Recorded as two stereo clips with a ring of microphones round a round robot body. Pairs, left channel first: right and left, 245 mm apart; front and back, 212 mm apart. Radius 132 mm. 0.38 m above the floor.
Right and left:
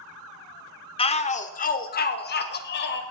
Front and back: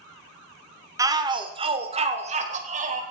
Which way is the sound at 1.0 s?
125° right.